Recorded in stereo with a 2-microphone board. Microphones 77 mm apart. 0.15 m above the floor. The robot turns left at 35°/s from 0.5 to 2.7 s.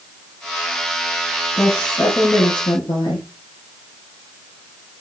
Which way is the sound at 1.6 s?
155° left.